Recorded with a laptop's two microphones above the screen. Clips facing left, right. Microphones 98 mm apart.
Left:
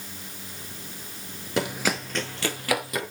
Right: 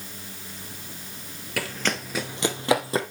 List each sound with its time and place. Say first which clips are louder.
1.6 s running footsteps: left 3 dB; 25° left (ahead or behind), 0.9 m; by 3.0 s 30° right (ahead or behind), 1.8 m